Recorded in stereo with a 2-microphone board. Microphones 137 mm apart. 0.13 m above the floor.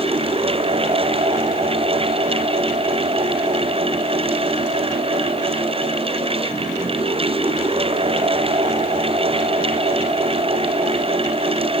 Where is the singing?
No singing in this recording.